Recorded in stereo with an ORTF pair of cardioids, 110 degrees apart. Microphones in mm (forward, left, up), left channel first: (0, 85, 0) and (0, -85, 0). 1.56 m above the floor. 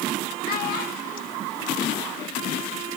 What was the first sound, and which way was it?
A child speaking, 70° left.